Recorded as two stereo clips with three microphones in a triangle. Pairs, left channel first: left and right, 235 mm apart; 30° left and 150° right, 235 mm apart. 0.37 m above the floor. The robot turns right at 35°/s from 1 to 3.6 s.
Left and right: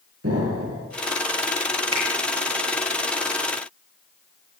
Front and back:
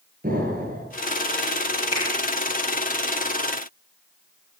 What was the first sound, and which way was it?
An explosion, 100° right.